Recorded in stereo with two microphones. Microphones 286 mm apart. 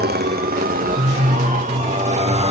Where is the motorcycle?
30° right (ahead or behind); by 2.5 s 20° right (ahead or behind).